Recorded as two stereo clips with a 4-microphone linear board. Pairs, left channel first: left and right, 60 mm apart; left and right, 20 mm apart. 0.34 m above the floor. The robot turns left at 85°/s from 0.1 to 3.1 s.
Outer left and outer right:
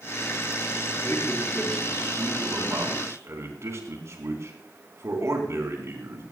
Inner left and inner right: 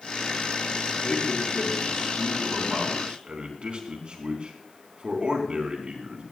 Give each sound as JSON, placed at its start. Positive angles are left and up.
{"t": 1.0, "sound": "a man speaking", "side_deg": 50, "distance_m": 4.0}